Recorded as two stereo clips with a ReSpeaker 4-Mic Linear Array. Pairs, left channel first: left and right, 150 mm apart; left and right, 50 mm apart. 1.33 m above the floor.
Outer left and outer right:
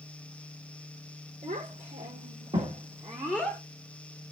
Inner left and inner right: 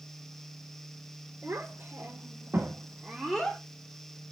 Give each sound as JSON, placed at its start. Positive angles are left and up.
{"t": 1.4, "sound": "a child speaking", "side_deg": -65, "distance_m": 3.0}